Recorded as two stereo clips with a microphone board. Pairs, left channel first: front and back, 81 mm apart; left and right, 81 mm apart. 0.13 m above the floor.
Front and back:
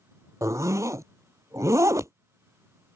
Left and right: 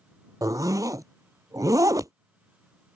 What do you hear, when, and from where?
0.4 s a zipper: 130° right